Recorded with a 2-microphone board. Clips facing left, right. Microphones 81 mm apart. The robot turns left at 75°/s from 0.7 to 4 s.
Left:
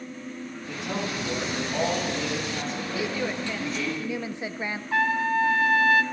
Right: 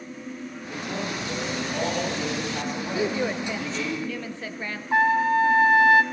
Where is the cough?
No cough in this recording.